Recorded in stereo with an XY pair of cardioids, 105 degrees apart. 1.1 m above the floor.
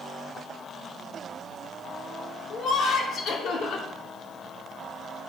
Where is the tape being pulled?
No tape being pulled in this recording.